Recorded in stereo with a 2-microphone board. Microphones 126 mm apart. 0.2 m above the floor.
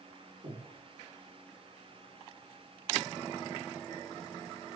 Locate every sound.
0.4 s breathing: 65° right (ahead or behind), 3.5 m